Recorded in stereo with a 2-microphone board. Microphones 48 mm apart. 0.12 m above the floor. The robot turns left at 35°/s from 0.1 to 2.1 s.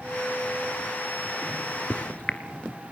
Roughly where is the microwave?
Left.